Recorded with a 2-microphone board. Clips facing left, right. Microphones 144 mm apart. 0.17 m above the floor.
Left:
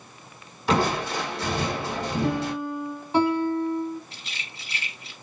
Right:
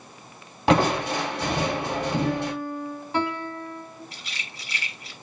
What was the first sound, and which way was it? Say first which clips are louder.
Crushing: right 3 dB; 80° right.